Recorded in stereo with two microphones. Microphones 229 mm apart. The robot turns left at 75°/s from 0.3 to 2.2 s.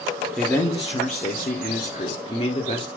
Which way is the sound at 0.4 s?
Straight behind.